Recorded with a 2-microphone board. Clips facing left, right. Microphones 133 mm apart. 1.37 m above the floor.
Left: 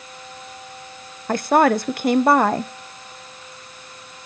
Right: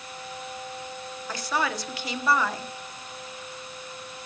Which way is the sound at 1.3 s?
55° left (ahead or behind).